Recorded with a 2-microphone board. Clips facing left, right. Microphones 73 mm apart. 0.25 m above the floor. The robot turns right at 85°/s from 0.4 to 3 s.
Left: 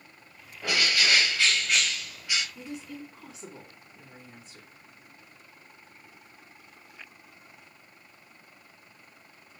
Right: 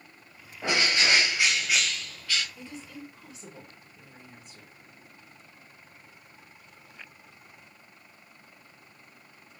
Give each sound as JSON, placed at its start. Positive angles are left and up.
{"t": 0.6, "sound": "a bird", "side_deg": -25, "distance_m": 0.7}
{"t": 2.5, "sound": "a woman speaking", "azimuth_deg": 20, "distance_m": 2.5}